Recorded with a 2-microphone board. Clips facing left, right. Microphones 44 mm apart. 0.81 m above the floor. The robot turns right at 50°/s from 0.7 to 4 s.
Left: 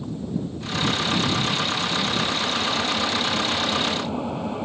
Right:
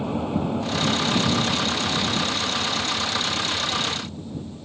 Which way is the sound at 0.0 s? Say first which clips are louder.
Right 4 dB; 75° right.